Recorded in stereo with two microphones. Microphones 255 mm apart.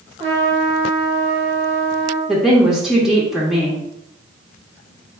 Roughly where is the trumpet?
Right.